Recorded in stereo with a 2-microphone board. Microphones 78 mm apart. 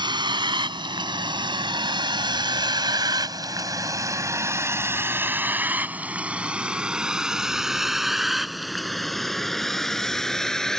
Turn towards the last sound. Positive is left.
turn(degrees=5)  # may be behind; listen again after turning